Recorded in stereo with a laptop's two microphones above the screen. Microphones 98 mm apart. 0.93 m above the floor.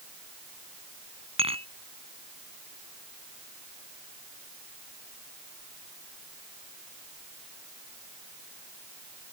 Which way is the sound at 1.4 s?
80° right.